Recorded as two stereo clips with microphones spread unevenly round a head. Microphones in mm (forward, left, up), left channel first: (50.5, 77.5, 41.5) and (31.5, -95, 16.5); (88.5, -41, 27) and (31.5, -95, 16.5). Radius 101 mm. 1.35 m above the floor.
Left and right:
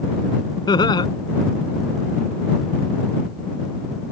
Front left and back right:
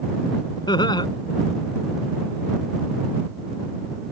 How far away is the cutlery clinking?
No cutlery clinking in this recording.